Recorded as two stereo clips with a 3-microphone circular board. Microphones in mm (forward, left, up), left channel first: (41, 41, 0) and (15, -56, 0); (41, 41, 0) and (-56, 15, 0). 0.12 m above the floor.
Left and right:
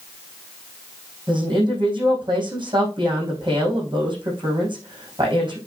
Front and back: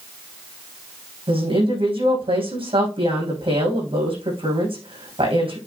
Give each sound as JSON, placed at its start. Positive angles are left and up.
{"t": 1.3, "sound": "a woman speaking", "azimuth_deg": -145, "distance_m": 6.0}